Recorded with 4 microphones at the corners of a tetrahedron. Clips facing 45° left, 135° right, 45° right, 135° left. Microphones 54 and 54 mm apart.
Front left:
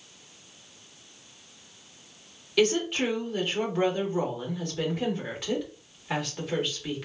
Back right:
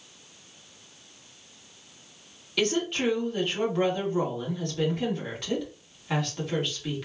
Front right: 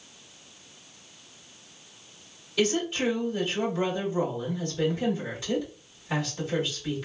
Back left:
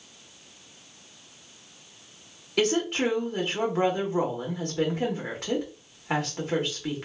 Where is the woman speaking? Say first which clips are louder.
Front left 2 dB, back left 2 dB; 130° left, 1.7 m.